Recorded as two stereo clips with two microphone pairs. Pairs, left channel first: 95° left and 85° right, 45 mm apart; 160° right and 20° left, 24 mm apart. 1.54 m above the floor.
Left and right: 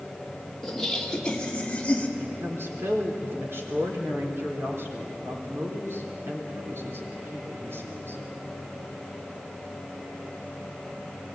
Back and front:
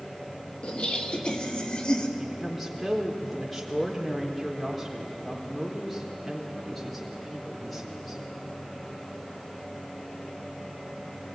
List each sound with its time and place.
0.6 s laughter: 175° left, 3 m; by 2.1 s 155° left, 3.5 m
2.2 s a woman speaking: 65° right, 4 m